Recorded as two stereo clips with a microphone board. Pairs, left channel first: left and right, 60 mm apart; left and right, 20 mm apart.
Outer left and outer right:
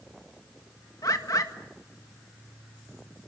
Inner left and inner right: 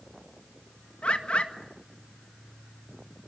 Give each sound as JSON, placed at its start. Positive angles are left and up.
{"t": 1.0, "sound": "a bird", "side_deg": 70, "distance_m": 1.8}